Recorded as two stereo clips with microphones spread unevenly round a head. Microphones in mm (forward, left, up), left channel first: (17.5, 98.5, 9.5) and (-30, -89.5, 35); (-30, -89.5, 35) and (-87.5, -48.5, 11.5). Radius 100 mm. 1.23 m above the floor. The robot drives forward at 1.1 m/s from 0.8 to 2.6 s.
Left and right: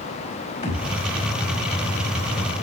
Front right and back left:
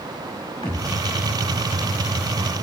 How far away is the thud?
About 4 m.